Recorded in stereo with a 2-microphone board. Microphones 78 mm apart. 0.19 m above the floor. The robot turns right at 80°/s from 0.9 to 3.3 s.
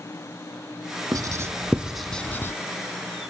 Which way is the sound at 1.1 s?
50° right (ahead or behind).